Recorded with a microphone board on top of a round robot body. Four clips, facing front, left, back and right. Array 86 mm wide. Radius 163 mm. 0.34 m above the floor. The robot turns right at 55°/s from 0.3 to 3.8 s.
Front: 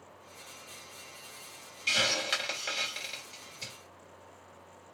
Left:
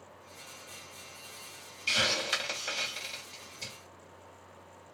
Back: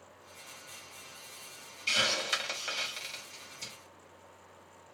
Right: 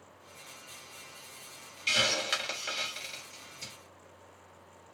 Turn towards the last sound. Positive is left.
turn(degrees=40)